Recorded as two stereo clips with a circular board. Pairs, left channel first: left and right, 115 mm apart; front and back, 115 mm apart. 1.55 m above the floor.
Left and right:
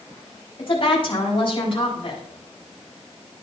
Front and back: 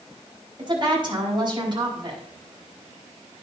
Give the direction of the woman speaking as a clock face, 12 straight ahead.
8 o'clock.